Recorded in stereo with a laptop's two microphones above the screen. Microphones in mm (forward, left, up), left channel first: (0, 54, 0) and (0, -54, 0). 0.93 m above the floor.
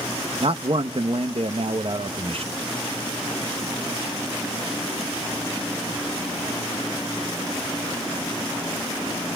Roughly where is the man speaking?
Right.